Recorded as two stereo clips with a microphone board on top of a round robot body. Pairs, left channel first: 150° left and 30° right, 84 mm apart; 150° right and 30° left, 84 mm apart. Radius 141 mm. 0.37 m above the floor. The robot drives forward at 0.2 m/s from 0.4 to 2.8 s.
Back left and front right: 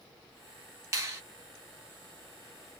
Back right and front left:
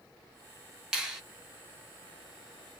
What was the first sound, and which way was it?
A finger snap, 50° right.